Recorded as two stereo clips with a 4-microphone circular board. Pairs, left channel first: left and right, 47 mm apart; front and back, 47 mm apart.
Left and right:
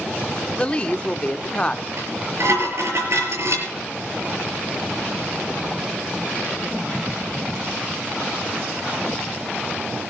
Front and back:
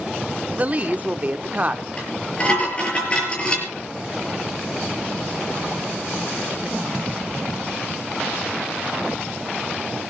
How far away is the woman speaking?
About 0.8 m.